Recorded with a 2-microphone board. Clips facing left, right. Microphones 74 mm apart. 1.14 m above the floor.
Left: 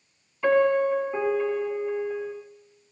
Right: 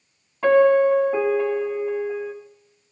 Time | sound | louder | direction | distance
0.4 | a piano | right 6 dB | 65° right (ahead or behind) | 7 m